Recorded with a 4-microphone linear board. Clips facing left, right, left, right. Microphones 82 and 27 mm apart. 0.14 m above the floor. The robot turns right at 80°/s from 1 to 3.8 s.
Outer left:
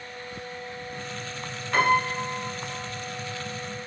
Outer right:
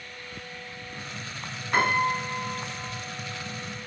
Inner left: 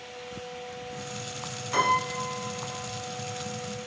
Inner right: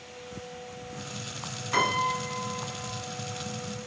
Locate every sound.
1.7 s a piano: 10° right (ahead or behind), 1.8 m; by 2.9 s 25° right (ahead or behind), 1.8 m